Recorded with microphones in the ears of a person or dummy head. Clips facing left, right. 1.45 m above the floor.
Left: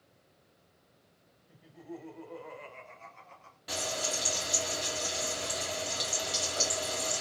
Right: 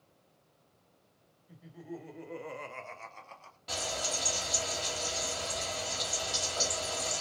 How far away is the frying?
About 1.5 m.